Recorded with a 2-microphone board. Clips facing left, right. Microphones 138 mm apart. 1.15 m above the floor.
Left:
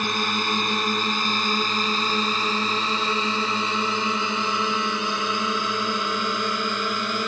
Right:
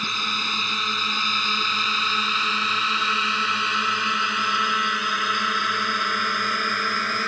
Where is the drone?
55° left (ahead or behind); by 7.3 s 20° left (ahead or behind).